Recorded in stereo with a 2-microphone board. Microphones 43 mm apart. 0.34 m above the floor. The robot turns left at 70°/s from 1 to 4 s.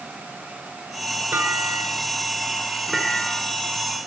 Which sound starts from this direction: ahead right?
A clunk, at 1.3 s.